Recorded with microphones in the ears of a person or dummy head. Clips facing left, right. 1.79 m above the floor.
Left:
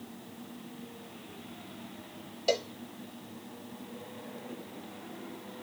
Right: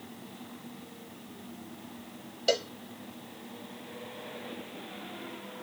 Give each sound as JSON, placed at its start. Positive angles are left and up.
{"t": 2.5, "sound": "a cowbell", "side_deg": -10}